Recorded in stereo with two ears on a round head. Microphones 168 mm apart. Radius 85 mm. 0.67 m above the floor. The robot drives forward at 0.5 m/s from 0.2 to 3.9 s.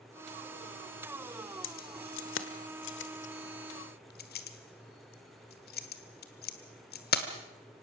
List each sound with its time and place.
1.6 s keys jangling: 75° left (ahead or behind), 1.5 m; by 7.3 s 60° left (ahead or behind), 1.7 m